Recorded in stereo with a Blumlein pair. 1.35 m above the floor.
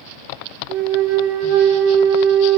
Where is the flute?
45° right, 1.3 m.